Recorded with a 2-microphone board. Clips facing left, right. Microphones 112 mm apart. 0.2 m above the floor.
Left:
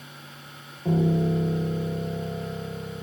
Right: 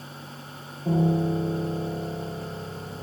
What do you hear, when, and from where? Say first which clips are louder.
0.8 s a piano: even; 30° left (ahead or behind), 4.5 m